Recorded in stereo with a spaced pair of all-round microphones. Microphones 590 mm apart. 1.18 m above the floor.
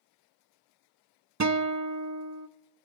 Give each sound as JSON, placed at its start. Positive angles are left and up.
{"t": 1.4, "sound": "a guitar", "side_deg": -30, "distance_m": 0.7}